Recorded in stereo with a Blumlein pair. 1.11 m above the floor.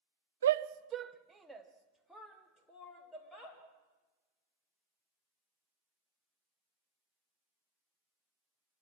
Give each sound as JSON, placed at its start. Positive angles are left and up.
{"t": 0.4, "sound": "a shout", "azimuth_deg": -65, "distance_m": 0.8}